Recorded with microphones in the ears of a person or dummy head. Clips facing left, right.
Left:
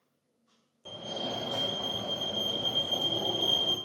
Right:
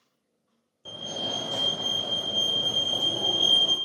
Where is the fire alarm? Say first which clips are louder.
Right 1 dB; 10° right (ahead or behind), 0.8 m.